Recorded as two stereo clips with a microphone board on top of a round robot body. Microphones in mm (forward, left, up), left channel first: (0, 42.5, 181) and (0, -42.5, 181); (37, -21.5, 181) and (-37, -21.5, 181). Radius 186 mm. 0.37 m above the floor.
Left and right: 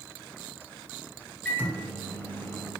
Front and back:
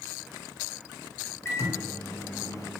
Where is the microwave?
30° left, 1.0 m.